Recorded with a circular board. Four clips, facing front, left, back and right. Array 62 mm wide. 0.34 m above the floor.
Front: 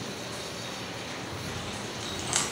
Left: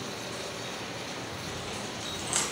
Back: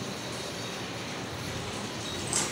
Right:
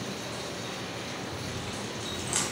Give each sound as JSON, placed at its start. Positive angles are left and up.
{"t": 1.3, "sound": "chewing", "azimuth_deg": 5, "distance_m": 1.7}